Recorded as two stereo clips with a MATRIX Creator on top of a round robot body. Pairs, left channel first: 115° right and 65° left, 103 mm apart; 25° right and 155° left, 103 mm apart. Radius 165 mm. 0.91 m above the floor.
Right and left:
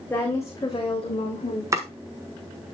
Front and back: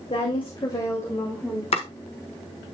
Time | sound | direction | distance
0.1 | a woman speaking | 45° right | 2.5 m
1.7 | chopping | 5° left | 1.4 m